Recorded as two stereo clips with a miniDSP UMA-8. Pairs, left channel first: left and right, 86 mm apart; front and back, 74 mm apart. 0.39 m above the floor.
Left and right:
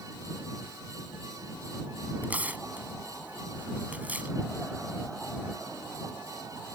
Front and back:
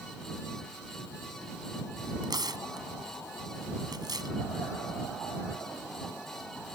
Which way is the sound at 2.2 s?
160° right.